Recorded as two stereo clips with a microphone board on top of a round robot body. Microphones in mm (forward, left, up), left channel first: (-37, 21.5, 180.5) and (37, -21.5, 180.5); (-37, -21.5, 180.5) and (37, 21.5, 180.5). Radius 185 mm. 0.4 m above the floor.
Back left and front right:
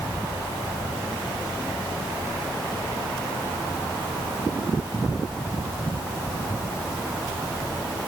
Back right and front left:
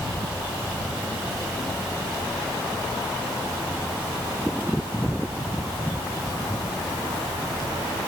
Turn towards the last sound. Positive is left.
No sound to turn to.